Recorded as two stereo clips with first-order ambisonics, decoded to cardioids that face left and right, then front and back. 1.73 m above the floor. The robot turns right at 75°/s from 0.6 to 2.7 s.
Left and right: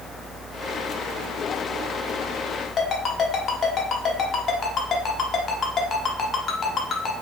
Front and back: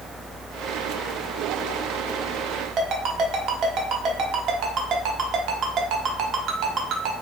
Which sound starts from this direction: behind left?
A ringtone, at 2.8 s.